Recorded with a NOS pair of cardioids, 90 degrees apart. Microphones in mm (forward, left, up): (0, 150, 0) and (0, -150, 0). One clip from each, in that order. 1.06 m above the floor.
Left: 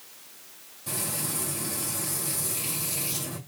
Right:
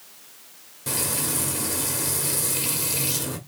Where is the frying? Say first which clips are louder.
Right 5 dB; 65° right, 1.8 m.